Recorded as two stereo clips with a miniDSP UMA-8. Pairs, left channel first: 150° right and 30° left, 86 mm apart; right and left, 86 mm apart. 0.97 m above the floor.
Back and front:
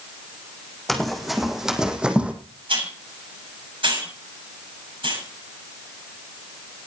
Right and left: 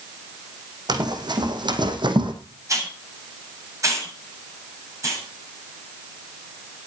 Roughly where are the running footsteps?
Behind left.